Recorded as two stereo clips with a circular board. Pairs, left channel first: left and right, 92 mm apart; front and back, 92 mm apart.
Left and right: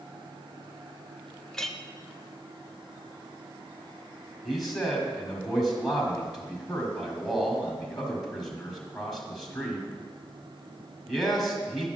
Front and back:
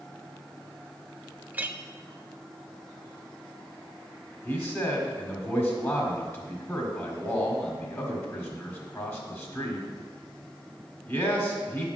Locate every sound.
1.5 s a clink: 165° left, 0.5 m
4.5 s a man speaking: straight ahead, 1.6 m